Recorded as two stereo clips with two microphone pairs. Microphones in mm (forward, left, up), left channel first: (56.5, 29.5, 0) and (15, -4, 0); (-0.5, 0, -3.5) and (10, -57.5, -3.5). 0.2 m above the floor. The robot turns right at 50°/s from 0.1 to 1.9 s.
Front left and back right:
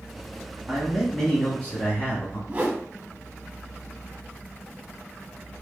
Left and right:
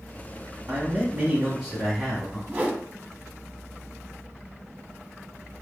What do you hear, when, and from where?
0.7 s a man speaking: 50° right, 1.3 m; by 2.4 s 10° left, 1.3 m
2.5 s a whoosh: 95° right, 1.2 m